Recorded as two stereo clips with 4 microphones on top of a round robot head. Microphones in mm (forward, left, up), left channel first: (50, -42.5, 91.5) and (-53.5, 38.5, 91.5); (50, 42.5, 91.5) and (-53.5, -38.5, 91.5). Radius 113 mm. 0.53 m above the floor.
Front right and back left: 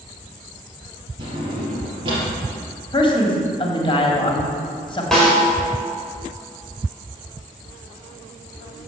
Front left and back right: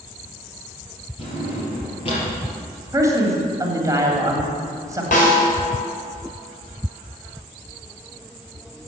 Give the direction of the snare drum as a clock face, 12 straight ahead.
10 o'clock.